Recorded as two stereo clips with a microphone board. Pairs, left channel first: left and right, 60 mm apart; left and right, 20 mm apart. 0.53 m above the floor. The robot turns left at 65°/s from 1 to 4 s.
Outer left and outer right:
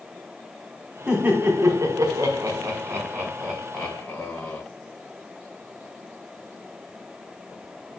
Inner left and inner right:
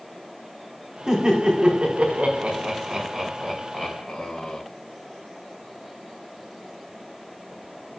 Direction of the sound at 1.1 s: 15° right (ahead or behind).